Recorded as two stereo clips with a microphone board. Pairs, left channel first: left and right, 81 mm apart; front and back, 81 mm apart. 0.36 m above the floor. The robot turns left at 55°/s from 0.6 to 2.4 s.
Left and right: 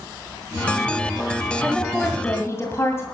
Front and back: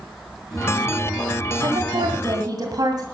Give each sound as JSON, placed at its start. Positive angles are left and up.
{"t": 1.6, "sound": "a woman speaking", "azimuth_deg": -170, "distance_m": 2.0}